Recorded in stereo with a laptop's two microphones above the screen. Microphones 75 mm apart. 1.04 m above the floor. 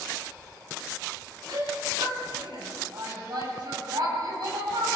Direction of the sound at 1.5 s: 75° right (ahead or behind).